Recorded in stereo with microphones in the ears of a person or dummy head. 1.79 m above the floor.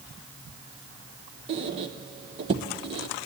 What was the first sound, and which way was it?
A squeak, 25° right (ahead or behind).